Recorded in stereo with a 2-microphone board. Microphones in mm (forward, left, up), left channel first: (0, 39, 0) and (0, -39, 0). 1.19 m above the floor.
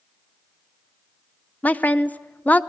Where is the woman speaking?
20° left (ahead or behind), 0.6 m.